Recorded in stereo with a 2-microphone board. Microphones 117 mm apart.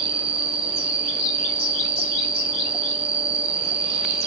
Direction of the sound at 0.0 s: 55° right (ahead or behind).